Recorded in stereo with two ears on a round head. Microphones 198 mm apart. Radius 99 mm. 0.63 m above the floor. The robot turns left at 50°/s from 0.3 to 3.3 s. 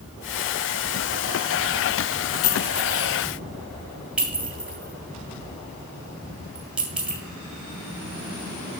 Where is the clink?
40° left (ahead or behind), 1.7 m; by 7.2 s 5° right (ahead or behind), 1.7 m.